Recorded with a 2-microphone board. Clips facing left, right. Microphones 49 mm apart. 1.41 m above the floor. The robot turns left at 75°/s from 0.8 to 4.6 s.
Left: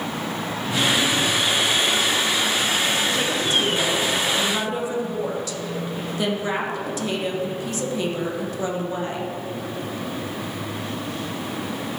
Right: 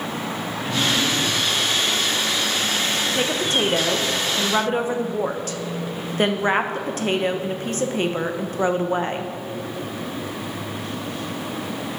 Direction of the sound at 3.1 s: 25° right.